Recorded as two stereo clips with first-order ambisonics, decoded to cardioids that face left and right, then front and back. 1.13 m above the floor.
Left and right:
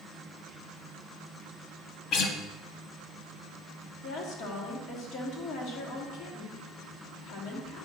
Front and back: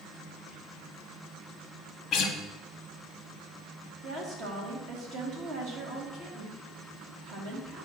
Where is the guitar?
55° left, 0.8 m.